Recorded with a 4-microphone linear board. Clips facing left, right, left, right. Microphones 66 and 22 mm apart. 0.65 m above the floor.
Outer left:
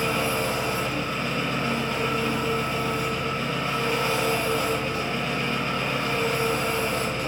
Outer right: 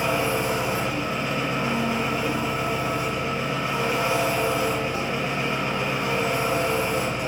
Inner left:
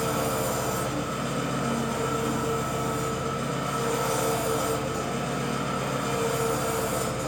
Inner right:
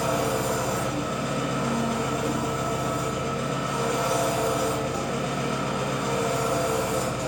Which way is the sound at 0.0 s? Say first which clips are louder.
Outer right 2 dB, inner right 2 dB; 20° right (ahead or behind).